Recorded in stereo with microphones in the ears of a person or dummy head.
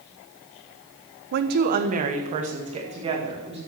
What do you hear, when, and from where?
1.3 s a woman speaking: 60° right (ahead or behind), 0.9 m; by 3.6 s 30° right (ahead or behind), 2.5 m